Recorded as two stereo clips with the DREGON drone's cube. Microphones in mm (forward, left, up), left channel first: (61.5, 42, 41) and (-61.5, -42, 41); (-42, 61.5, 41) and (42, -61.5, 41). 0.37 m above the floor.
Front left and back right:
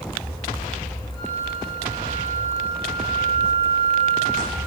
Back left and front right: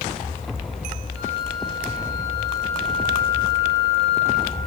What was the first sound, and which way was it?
A flute, 90° right.